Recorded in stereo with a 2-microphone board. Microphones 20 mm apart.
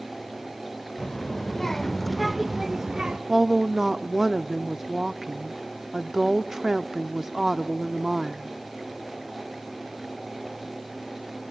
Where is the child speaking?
35° left (ahead or behind), 1.1 m; by 3.2 s 40° right (ahead or behind), 0.8 m.